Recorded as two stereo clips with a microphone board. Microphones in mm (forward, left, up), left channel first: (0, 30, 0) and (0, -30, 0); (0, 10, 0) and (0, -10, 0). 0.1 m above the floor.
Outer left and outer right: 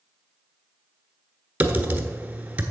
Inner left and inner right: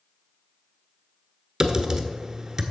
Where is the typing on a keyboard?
25° right (ahead or behind), 1.0 m.